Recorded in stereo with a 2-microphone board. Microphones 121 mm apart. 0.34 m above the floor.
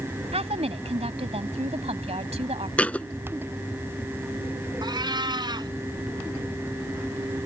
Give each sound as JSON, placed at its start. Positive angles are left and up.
{"t": 0.3, "sound": "a woman speaking", "side_deg": -60}
{"t": 2.8, "sound": "a thud", "side_deg": 10}
{"t": 4.8, "sound": "a cat meowing", "side_deg": -40}